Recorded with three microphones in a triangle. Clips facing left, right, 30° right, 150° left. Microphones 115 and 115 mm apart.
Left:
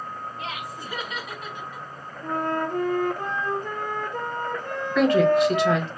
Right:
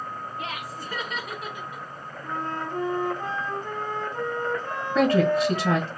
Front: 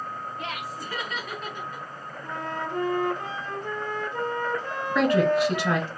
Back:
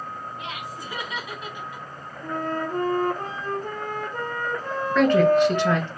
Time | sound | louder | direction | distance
0.4 | laughter | even, front 1 dB | 100° left | 1.6 m
2.2 | a flute | left 5 dB, back 5 dB | 110° left | 0.7 m
5.0 | a woman speaking | left 2 dB, back 4 dB | 105° right | 1.3 m